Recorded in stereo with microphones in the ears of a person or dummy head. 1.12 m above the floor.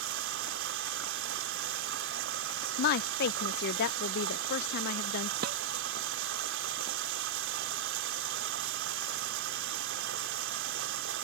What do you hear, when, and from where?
0.0 s running water: 60° right (ahead or behind)
2.8 s a woman speaking: 50° left (ahead or behind)
5.4 s dishes clattering: 55° right (ahead or behind)